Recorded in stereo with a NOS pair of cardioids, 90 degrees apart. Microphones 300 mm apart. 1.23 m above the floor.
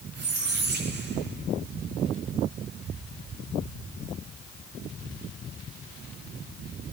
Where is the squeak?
40° right, 8 m.